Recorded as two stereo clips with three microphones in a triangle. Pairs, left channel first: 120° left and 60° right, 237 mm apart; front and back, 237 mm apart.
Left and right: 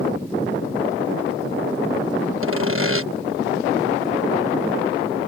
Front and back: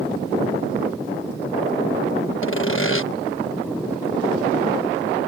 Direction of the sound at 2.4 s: 30° right.